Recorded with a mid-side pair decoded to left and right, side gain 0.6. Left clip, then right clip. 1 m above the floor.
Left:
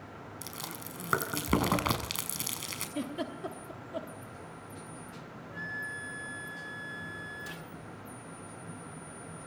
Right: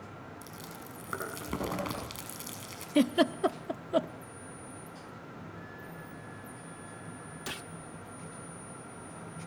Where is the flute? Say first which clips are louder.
Left 9 dB; 65° left, 1.1 m.